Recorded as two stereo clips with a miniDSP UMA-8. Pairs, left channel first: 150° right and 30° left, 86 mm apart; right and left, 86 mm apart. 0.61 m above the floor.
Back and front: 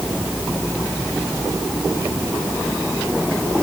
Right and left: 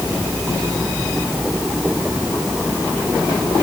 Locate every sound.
Only background noise.